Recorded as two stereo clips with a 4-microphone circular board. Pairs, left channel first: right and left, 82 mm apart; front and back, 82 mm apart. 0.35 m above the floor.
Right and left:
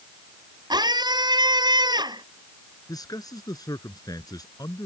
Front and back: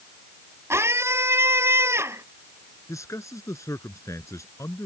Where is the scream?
120° left.